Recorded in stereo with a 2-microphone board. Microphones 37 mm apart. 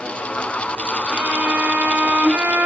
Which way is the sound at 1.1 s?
35° right (ahead or behind).